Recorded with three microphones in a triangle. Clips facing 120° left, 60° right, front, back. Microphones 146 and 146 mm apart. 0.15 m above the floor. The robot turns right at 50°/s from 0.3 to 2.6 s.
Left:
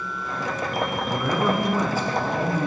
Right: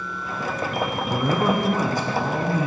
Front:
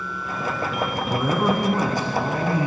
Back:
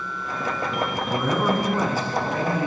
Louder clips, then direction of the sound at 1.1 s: Right 2 dB, front 1 dB; 70° right.